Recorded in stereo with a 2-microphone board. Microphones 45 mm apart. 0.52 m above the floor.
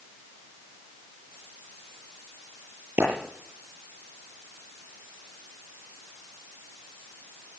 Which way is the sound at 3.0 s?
55° right (ahead or behind).